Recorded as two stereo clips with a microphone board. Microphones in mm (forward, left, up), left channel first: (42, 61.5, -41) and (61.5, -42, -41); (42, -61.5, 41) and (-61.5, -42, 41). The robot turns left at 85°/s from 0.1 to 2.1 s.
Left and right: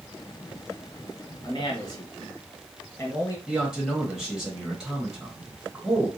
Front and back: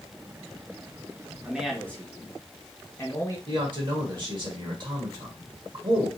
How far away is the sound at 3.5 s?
About 1.2 m.